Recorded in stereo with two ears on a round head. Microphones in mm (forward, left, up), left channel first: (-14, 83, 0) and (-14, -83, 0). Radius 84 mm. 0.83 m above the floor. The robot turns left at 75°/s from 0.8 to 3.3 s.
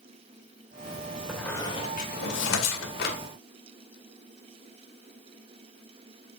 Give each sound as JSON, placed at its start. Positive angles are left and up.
{"t": 1.3, "sound": "a squeak", "side_deg": -5, "distance_m": 2.0}